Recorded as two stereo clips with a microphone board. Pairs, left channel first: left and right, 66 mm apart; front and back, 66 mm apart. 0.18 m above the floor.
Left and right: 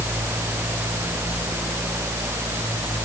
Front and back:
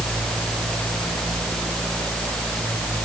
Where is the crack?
I don't hear a crack.